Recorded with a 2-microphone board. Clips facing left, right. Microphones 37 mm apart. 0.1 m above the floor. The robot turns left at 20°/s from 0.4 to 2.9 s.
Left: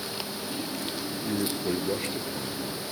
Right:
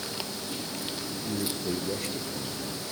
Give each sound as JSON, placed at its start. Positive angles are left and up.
{"t": 1.1, "sound": "a man speaking", "azimuth_deg": 45, "distance_m": 2.0}